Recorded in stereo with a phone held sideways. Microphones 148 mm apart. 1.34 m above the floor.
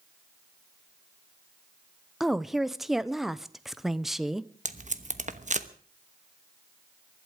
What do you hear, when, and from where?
2.2 s a woman speaking: centre (ahead or behind), 0.7 m
4.7 s tape being pulled: 55° right (ahead or behind), 1.0 m